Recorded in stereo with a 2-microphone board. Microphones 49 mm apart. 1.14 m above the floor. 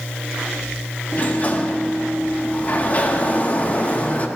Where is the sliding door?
35° left (ahead or behind), 0.8 m.